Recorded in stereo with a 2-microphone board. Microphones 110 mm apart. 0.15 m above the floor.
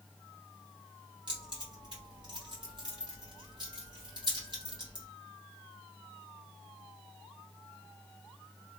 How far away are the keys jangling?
About 2 m.